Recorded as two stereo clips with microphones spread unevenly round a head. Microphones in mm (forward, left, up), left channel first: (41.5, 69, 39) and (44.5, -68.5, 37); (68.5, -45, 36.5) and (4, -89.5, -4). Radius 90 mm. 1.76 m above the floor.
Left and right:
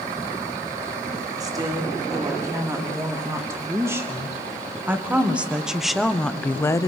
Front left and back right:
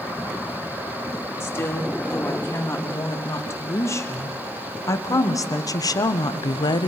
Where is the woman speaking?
25° right, 4 m; by 6.9 s 25° left, 0.8 m.